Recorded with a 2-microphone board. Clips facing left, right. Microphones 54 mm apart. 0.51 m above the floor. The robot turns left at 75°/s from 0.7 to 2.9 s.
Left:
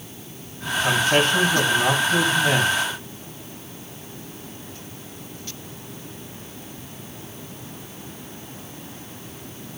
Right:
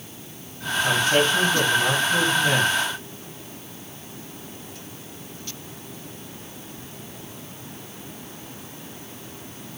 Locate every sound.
0.8 s a man speaking: 155° left, 4.5 m; by 2.7 s 10° left, 4.5 m